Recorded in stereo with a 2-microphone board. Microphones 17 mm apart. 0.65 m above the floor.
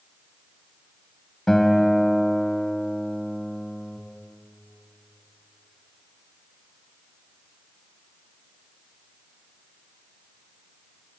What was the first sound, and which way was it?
A guitar, 30° left (ahead or behind).